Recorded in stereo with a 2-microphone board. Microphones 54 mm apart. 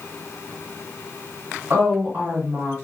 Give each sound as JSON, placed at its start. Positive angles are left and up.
{"t": 1.7, "sound": "a woman speaking", "side_deg": -35, "distance_m": 1.4}